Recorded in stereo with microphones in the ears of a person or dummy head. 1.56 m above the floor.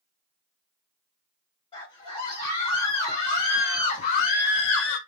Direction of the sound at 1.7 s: 25° left (ahead or behind).